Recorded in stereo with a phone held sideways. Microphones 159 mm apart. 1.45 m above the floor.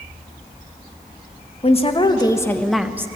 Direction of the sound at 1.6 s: 40° left (ahead or behind).